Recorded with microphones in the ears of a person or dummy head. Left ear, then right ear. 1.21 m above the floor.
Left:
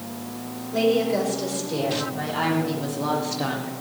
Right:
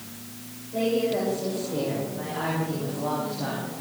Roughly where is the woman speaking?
Left.